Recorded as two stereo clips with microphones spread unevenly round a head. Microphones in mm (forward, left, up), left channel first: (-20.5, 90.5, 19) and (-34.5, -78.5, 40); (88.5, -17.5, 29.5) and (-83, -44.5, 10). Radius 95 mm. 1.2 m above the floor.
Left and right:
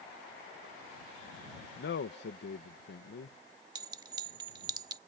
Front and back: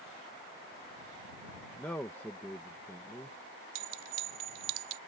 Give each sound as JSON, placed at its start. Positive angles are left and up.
{"t": 1.8, "sound": "a man speaking", "azimuth_deg": 90}
{"t": 3.8, "sound": "a clink", "azimuth_deg": -160}